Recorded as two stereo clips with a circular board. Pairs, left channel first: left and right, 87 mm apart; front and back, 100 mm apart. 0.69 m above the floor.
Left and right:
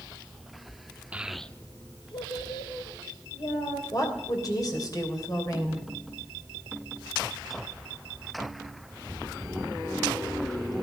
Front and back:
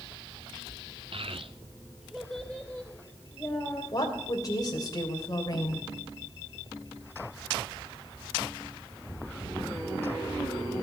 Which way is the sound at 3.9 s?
50° left.